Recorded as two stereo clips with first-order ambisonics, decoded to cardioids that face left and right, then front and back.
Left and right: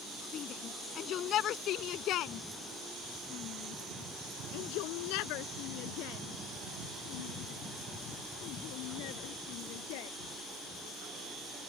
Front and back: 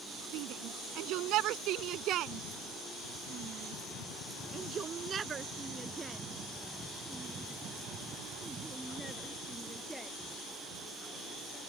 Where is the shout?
150° left; by 10.1 s 90° left.